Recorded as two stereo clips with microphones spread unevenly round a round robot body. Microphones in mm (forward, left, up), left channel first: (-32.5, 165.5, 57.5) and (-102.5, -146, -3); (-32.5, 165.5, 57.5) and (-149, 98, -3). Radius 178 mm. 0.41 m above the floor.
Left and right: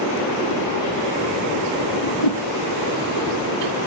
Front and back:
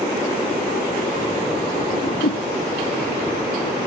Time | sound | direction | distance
1.9 | a whoosh | 40° left | 1.1 m